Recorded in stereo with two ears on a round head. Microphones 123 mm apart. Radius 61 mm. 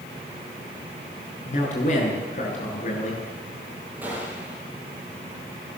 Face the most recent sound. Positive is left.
turn(degrees=-15)  # may be behind; listen again after turning